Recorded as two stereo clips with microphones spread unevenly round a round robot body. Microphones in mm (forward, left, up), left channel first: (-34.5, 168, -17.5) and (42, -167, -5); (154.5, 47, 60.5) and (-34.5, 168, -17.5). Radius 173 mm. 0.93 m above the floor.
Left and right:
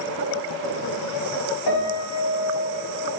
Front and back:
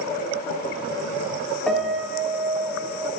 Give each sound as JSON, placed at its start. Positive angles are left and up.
{"t": 1.7, "sound": "a piano", "azimuth_deg": 60, "distance_m": 0.7}